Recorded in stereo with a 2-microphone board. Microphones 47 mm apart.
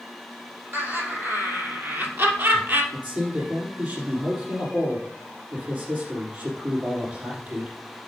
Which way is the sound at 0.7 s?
55° right (ahead or behind).